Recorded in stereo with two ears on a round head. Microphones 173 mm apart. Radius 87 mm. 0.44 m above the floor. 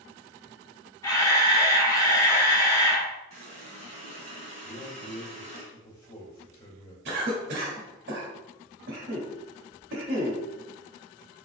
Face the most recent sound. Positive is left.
turn(degrees=-60)  # may be behind; listen again after turning